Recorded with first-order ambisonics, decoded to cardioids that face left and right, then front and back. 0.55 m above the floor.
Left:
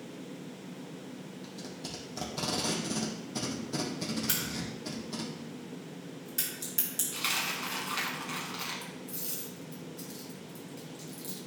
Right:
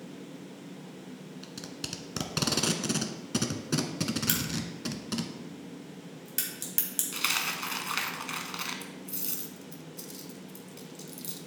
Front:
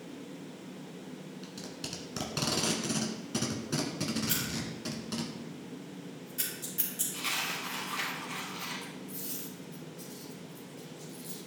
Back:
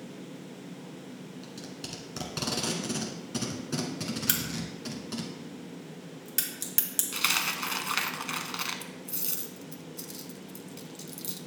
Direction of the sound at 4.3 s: 155° right.